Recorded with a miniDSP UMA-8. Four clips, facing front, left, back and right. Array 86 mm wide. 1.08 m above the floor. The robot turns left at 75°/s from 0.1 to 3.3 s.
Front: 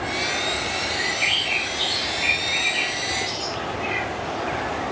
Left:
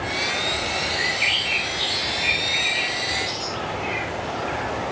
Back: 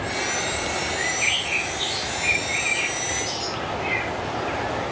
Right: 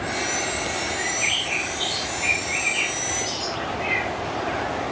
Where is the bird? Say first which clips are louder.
Left 1 dB, even; 85° left, 7 m; by 4.1 s 90° right, 7 m.